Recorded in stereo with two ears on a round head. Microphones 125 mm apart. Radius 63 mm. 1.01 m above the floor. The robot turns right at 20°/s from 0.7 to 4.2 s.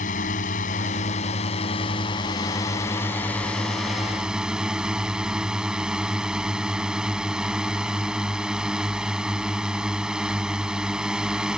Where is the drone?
115° left; by 11.6 s 175° right.